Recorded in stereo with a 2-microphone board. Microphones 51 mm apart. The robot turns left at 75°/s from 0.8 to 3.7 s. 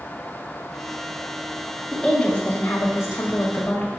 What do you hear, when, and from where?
1.9 s a woman speaking: straight behind, 1.8 m; by 4.0 s 45° left, 1.8 m